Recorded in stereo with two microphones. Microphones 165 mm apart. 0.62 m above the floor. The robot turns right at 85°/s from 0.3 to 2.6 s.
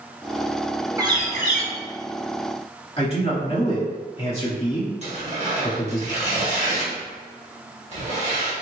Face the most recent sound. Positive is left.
turn(degrees=-40)  # may be behind; listen again after turning